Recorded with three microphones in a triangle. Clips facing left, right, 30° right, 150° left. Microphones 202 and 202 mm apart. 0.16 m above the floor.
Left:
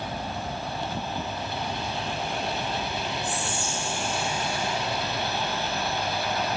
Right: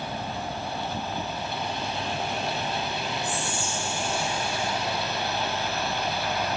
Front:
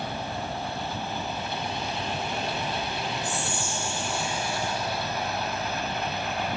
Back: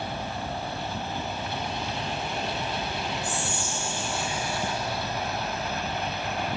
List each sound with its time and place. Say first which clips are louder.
3.2 s whispering: even, even; 10° left, 1.7 m